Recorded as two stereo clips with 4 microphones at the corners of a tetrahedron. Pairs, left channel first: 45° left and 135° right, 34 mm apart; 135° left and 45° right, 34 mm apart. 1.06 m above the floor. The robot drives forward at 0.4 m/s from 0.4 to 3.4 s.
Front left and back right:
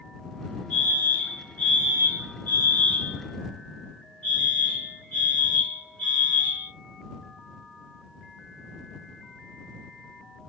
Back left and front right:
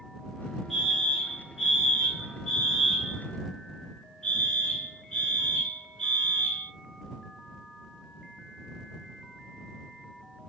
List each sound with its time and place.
0.7 s a fire alarm: 35° left, 2 m; by 6.7 s 75° left, 1.5 m